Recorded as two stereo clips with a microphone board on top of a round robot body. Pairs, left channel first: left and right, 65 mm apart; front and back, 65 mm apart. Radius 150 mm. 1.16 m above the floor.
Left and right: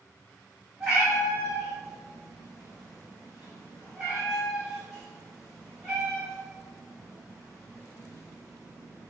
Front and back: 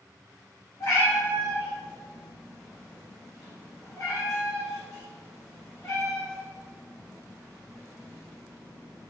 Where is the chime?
No chime in this recording.